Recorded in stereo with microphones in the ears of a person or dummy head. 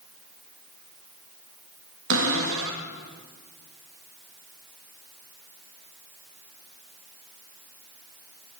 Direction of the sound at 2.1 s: 80° right.